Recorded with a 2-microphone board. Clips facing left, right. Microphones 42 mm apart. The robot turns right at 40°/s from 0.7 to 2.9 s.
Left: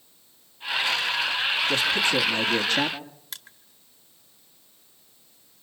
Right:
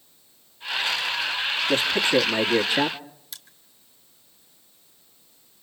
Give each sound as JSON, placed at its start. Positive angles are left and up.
{"t": 1.7, "sound": "a man speaking", "azimuth_deg": -55, "distance_m": 1.6}
{"t": 3.3, "sound": "crushing", "side_deg": 55, "distance_m": 1.8}